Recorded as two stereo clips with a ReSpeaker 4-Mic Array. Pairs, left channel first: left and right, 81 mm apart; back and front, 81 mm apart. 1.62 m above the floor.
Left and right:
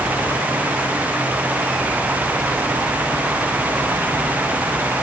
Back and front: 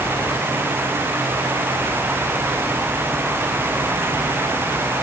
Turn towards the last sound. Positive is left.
No sound to turn to.